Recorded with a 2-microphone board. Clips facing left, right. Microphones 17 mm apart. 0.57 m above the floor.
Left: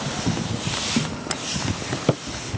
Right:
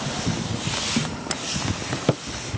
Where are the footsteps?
30° left (ahead or behind), 1.5 m; by 2.4 s 10° left (ahead or behind), 4 m.